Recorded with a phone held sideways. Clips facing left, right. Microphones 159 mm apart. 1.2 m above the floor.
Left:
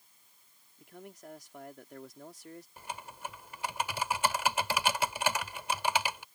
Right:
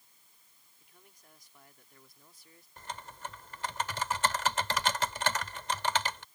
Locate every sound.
0.8 s a man speaking: 80° left
2.8 s typing on a keyboard: 10° left (ahead or behind)